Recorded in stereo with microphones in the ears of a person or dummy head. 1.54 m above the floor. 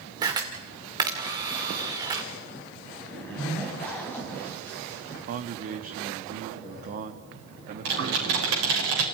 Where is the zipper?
10° left (ahead or behind), 3.5 m.